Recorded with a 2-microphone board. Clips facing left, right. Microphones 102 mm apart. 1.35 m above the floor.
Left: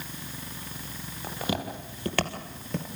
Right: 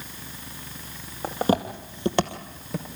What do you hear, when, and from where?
1.2 s footsteps: 45° right (ahead or behind), 2.5 m; by 2.9 s centre (ahead or behind), 1.7 m